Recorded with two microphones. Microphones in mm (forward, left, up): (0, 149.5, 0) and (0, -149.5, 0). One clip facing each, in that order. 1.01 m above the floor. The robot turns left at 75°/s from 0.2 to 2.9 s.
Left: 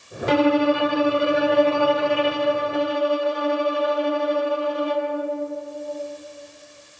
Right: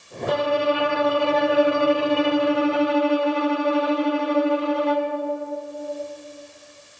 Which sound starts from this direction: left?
A violin, at 0.3 s.